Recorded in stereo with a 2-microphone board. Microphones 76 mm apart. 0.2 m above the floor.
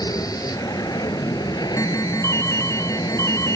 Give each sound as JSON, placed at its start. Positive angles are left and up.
{"t": 0.0, "sound": "an aircraft", "side_deg": 50}
{"t": 1.8, "sound": "an alarm", "side_deg": 40}